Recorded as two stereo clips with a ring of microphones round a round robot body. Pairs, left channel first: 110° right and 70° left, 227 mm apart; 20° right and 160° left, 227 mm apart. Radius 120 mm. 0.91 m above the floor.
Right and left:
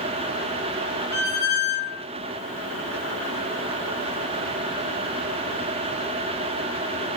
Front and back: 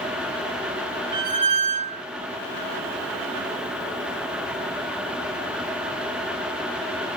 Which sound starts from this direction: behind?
A squeak, at 1.1 s.